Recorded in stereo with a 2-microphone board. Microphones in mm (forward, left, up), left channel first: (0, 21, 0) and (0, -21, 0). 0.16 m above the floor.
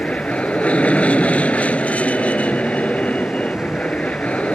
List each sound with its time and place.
0.0 s an aircraft: 35° left (ahead or behind)